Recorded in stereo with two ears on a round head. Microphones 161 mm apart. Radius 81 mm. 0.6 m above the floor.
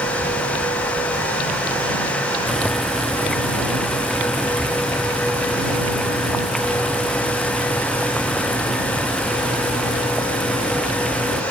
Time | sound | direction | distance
2.5 | boiling | centre (ahead or behind) | ?